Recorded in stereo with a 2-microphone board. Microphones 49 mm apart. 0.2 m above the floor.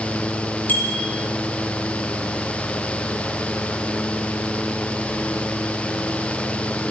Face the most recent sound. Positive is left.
turn(degrees=35)  # may be behind; listen again after turning